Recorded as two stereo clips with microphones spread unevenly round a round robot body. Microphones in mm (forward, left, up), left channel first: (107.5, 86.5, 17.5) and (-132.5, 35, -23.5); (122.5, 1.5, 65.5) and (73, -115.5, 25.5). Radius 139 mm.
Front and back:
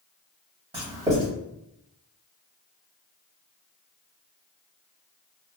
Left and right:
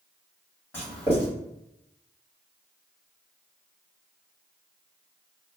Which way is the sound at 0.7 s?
160° left.